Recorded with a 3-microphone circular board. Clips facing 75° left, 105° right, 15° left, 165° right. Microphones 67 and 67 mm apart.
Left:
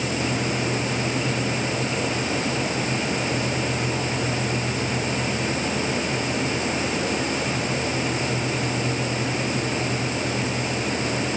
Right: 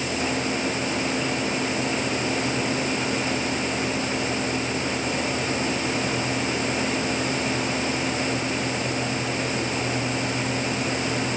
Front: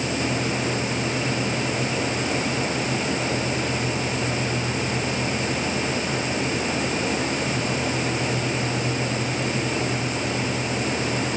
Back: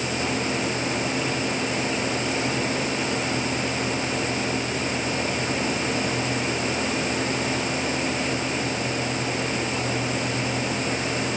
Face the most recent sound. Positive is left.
No sound to turn to.